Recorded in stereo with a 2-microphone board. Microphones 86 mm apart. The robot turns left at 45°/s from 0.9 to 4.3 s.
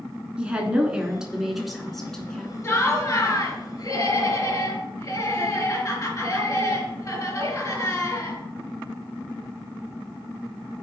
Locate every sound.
0.4 s a woman speaking: 15° right (ahead or behind), 1.1 m; by 2.5 s 10° left (ahead or behind), 1.1 m
2.6 s laughter: 130° left, 2 m; by 8.4 s 55° left, 2 m